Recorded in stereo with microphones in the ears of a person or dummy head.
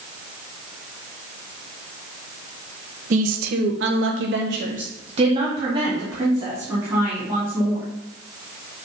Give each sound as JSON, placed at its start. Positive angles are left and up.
{"t": 3.1, "sound": "a woman speaking", "side_deg": -45, "distance_m": 1.1}